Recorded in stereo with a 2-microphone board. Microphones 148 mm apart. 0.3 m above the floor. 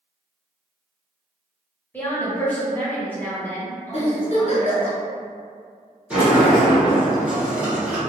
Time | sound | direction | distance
1.9 | a woman speaking | 15° left (ahead or behind) | 1.1 m
3.9 | a giggle | 45° left (ahead or behind) | 1.2 m
6.1 | a sliding door | 10° right (ahead or behind) | 1.7 m